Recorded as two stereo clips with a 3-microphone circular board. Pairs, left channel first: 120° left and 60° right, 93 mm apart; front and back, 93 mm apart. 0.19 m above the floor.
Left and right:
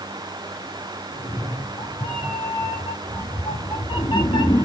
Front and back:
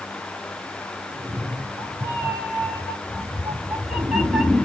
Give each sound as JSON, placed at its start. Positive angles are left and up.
{"t": 1.1, "sound": "a cat meowing", "azimuth_deg": 115, "distance_m": 5.0}